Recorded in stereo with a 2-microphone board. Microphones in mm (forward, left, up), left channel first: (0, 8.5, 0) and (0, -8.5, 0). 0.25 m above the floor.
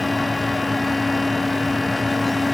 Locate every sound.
Only background noise.